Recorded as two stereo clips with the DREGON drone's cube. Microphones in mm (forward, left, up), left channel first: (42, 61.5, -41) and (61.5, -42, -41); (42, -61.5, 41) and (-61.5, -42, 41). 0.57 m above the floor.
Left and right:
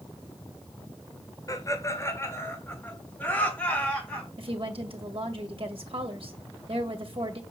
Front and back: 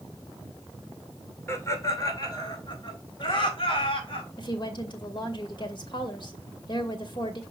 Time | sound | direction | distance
1.5 | laughter | 50° left | 2.5 m
4.4 | a woman speaking | 50° right | 2 m